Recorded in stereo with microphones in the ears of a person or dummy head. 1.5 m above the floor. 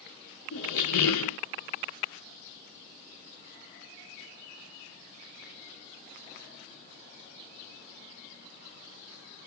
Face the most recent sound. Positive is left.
turn(degrees=55)  # may be behind; listen again after turning